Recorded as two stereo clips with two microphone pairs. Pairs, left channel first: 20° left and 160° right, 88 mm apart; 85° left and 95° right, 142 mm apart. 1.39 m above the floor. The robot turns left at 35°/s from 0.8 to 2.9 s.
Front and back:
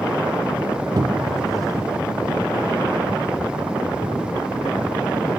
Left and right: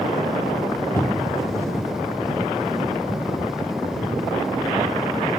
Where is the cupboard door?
160° left, 1.0 m; by 1.4 s 145° left, 1.0 m.